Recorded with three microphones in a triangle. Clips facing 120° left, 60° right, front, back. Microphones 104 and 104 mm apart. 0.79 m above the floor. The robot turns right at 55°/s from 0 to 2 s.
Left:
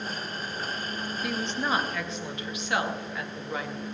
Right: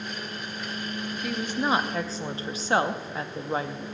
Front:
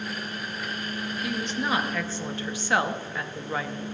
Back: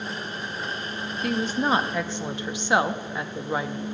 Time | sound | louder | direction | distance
1.2 | a woman speaking | right 3 dB, back 6 dB | 155° right | 0.7 m